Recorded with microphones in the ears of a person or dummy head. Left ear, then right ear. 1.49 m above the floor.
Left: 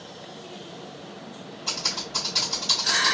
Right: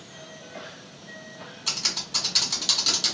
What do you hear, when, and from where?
1.7 s typing on a keyboard: 35° right (ahead or behind), 1.7 m